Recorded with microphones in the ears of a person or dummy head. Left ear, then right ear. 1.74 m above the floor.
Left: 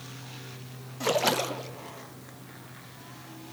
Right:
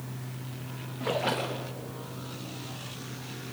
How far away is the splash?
About 0.9 m.